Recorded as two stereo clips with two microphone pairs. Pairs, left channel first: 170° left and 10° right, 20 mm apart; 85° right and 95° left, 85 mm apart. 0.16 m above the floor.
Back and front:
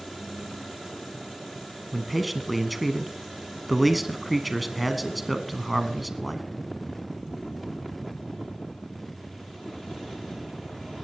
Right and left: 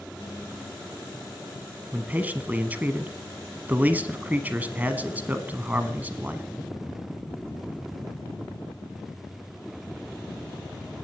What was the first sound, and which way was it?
A man speaking, 70° left.